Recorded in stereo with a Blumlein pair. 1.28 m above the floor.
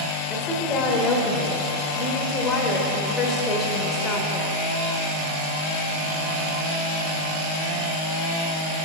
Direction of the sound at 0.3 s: 25° left.